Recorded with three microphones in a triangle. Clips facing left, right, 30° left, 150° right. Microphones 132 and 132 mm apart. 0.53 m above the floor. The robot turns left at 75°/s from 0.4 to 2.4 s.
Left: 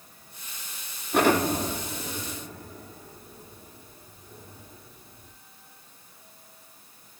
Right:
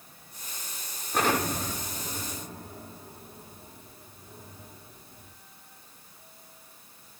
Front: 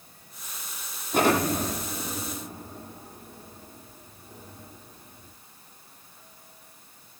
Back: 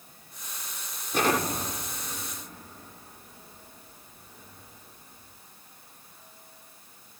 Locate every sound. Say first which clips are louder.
1.1 s an explosion: left 5 dB, front 4 dB; 70° left, 8 m; by 5.3 s 25° right, 8 m